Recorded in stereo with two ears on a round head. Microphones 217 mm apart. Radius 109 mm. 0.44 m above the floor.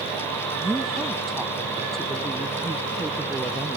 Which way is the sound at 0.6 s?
5° right (ahead or behind).